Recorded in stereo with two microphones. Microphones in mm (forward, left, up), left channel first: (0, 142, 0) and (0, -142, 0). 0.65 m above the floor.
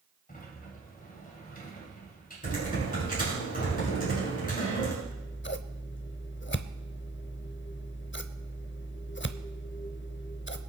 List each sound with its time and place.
0.3 s a sliding door: 30° left (ahead or behind), 2.5 m
2.4 s typing on a keyboard: 30° left (ahead or behind), 8.5 m
5.0 s scissors: 40° left (ahead or behind), 0.7 m